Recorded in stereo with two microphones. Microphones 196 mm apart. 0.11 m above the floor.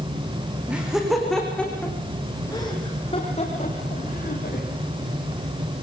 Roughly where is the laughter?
Centre.